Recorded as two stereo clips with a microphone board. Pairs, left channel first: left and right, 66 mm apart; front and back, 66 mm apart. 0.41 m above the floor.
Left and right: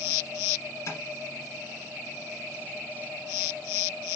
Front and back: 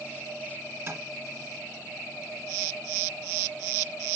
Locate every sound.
0.9 s tapping: 130° left, 3 m